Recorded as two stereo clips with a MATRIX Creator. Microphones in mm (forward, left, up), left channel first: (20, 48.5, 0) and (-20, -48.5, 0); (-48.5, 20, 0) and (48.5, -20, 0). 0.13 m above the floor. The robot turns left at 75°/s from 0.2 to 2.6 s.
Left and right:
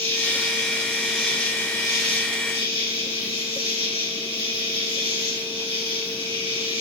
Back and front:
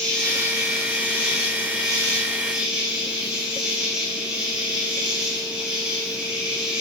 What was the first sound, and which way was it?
An insect, 120° right.